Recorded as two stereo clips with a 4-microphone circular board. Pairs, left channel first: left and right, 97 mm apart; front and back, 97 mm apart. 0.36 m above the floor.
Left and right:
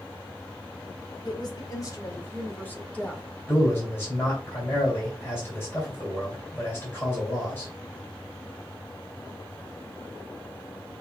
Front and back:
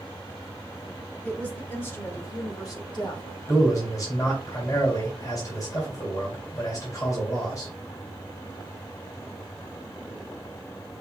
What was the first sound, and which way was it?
A woman speaking, 70° left.